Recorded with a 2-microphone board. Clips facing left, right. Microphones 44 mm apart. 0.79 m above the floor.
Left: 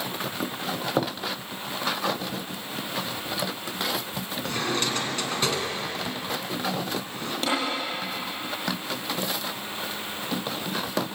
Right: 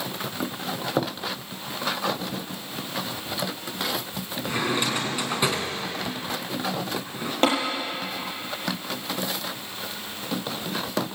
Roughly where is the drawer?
Centre.